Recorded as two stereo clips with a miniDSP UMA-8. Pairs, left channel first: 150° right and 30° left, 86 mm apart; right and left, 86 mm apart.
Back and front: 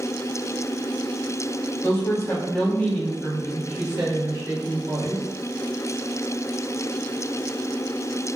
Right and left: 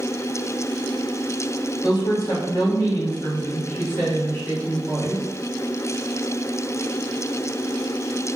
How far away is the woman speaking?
About 1.3 m.